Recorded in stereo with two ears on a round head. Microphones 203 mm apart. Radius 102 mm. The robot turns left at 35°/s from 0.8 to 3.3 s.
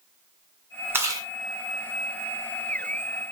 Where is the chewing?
10° right (ahead or behind), 1.9 m; by 1.3 s 20° right (ahead or behind), 1.9 m.